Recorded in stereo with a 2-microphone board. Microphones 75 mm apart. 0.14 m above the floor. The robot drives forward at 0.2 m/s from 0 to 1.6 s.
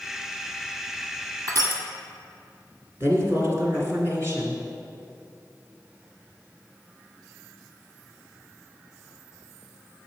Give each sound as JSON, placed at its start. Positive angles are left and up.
{"t": 1.5, "sound": "crushing", "side_deg": -50, "distance_m": 1.2}
{"t": 3.0, "sound": "a woman speaking", "side_deg": -35, "distance_m": 1.7}